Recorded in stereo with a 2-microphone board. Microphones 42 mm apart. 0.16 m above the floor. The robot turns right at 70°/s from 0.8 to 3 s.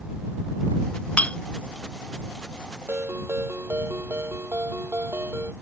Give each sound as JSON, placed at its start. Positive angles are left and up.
{"t": 1.2, "sound": "a clink", "side_deg": 30}
{"t": 2.9, "sound": "a ringtone", "side_deg": -70}